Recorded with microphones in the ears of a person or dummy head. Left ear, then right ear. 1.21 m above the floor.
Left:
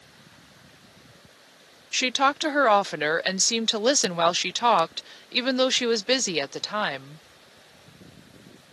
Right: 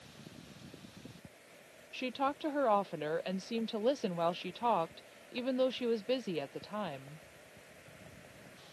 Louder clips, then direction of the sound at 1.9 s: Left 13 dB; 60° left (ahead or behind).